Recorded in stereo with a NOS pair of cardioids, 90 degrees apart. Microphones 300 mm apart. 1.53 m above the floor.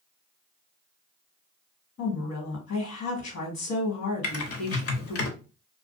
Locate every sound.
2.0 s a woman speaking: 65° left, 1.4 m
4.2 s typing on a keyboard: 50° left, 0.9 m